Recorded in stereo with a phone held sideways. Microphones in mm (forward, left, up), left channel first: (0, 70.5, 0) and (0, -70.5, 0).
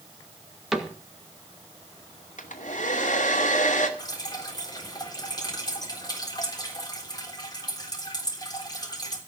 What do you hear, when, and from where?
0.7 s a cupboard door: 5° right (ahead or behind), 2 m
2.4 s a hair dryer: 65° left (ahead or behind), 2.5 m
4.0 s dripping: 30° left (ahead or behind), 3.5 m